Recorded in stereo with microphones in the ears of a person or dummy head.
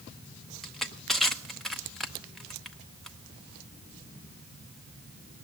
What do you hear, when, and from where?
0.6 s crushing: 5° left (ahead or behind), 0.7 m